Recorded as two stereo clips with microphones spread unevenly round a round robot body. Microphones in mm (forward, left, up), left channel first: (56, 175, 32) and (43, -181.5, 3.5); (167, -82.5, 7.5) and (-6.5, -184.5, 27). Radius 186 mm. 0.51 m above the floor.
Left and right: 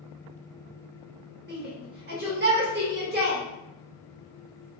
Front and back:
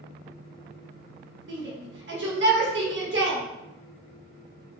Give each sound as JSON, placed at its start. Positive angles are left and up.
{"t": 1.5, "sound": "a shout", "azimuth_deg": -145, "distance_m": 1.5}